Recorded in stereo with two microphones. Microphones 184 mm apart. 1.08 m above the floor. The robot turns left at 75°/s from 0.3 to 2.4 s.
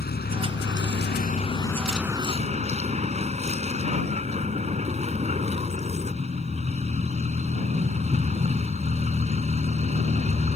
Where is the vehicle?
120° left; by 10.6 s 35° right.